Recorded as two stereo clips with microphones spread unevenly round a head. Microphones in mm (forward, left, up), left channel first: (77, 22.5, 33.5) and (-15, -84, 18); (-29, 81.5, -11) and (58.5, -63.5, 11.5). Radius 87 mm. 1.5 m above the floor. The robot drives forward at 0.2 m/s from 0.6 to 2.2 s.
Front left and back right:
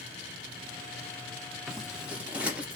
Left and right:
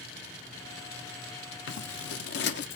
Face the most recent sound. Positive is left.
turn(degrees=150)